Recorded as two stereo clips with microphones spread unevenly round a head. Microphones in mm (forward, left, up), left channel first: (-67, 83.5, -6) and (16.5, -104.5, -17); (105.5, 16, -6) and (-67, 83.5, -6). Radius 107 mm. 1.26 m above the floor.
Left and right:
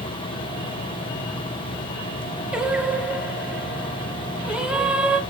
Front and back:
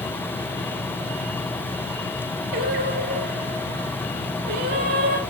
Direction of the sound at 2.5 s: 150° right.